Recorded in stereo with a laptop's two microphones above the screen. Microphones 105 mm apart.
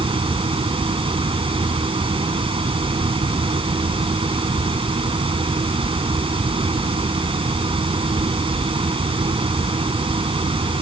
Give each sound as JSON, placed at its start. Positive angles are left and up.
{"t": 0.0, "sound": "a fan", "side_deg": -60}